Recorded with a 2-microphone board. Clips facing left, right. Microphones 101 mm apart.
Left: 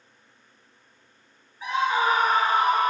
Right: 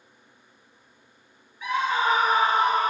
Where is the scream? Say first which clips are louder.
Left 1 dB; 35° left (ahead or behind), 1.4 m; by 2.9 s 45° right (ahead or behind), 1.5 m.